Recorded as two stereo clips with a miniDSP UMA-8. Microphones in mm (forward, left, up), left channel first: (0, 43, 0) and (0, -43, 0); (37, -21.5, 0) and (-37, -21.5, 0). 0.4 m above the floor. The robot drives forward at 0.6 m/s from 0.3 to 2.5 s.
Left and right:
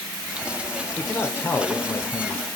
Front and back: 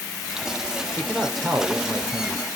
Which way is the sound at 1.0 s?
60° left.